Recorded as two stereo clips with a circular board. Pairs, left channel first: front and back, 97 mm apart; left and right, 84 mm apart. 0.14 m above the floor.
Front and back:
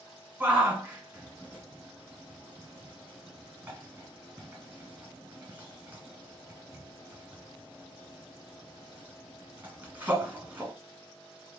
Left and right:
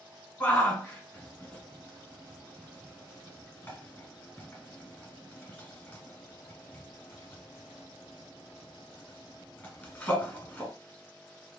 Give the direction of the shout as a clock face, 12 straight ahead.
8 o'clock.